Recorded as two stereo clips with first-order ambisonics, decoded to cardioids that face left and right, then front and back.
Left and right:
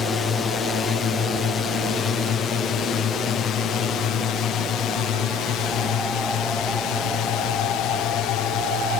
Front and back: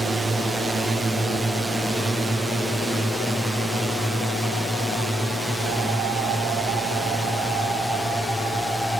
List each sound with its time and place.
0.0 s a drone: 115° left; by 9.0 s 85° left